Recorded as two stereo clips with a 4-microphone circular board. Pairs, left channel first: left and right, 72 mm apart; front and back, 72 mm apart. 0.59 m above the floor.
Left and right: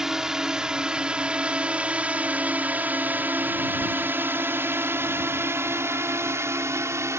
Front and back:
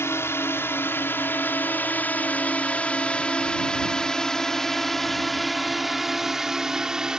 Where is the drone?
15° right; by 7.2 s 105° right.